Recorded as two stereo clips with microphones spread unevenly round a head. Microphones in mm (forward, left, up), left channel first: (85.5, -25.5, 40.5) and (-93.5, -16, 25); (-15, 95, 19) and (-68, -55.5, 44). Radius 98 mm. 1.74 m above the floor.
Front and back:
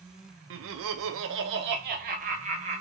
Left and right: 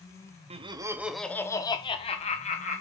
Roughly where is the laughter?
Behind.